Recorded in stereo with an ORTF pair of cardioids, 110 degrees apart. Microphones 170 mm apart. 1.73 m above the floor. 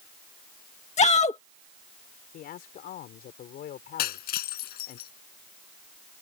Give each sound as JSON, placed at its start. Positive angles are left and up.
{"t": 1.0, "sound": "a shout", "azimuth_deg": 45}
{"t": 2.3, "sound": "a man speaking", "azimuth_deg": 65}
{"t": 4.0, "sound": "breaking glass", "azimuth_deg": 70}